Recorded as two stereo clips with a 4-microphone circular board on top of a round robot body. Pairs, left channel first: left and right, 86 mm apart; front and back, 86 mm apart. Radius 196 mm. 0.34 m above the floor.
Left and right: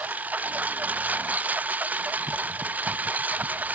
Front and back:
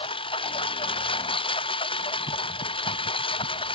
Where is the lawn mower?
15° right.